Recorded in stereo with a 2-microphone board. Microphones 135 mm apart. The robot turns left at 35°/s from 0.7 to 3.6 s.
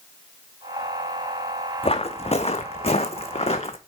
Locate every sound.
1.8 s footsteps: 45° left (ahead or behind), 1.1 m